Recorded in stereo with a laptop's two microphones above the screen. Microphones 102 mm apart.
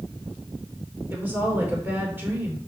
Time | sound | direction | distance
1.1 | a woman speaking | 20° right (ahead or behind) | 3.5 m